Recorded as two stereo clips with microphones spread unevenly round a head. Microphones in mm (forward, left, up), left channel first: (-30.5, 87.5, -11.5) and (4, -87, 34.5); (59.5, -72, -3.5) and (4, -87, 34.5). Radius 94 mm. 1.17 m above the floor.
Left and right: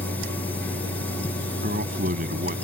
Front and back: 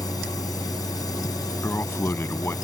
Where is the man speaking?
35° right.